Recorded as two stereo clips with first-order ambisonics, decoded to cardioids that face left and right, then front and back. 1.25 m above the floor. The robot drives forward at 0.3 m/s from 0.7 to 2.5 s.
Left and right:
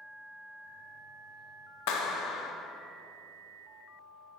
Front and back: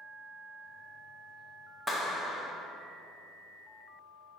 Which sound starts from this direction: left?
A clap, at 1.9 s.